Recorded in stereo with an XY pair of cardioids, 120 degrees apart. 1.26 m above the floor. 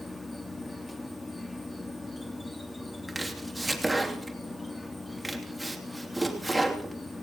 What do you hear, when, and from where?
0.0 s an insect: 10° left, 2.5 m
3.1 s chopping: 10° right, 3 m